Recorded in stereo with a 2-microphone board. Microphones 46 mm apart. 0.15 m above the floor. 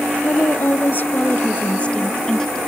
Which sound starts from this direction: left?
A woman speaking, at 0.2 s.